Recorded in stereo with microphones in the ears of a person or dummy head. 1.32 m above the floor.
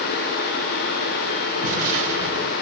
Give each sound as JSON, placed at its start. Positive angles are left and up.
{"t": 1.6, "sound": "an explosion", "side_deg": -65, "distance_m": 2.5}